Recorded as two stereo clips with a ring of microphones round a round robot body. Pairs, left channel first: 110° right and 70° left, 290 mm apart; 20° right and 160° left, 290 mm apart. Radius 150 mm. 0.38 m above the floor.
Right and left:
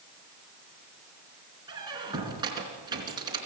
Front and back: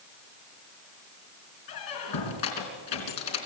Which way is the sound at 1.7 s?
10° right.